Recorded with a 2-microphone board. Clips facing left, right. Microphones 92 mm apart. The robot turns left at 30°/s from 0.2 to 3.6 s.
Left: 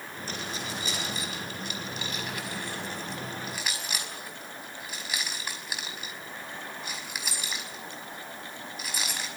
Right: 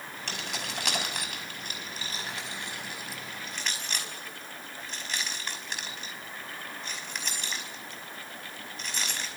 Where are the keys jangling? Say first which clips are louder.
Left 2 dB; 85° right, 5.5 m; by 9.3 s 10° left (ahead or behind), 5.5 m.